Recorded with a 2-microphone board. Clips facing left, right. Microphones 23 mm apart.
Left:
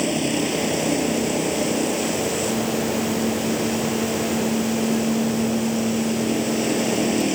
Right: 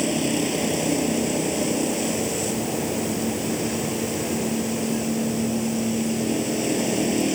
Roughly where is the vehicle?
Centre.